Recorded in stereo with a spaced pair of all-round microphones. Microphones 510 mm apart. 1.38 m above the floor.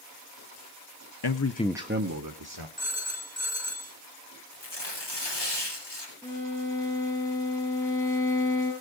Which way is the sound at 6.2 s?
5° left (ahead or behind).